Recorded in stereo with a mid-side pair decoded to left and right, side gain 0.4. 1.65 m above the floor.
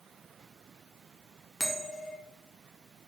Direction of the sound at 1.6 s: 10° right.